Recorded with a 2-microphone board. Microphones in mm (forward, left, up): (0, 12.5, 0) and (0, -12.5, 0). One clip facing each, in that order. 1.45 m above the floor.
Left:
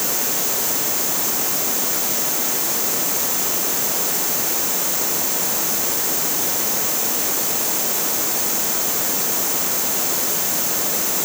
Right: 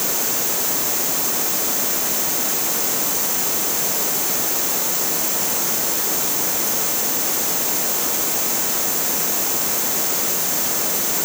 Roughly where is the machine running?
I don't hear a machine running.